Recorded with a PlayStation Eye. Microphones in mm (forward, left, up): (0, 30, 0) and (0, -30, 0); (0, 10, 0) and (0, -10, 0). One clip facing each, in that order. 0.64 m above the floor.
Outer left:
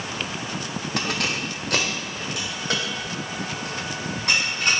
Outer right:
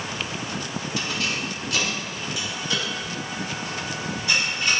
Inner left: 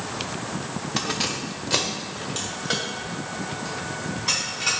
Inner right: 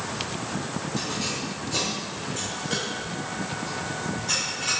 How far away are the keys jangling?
About 0.7 m.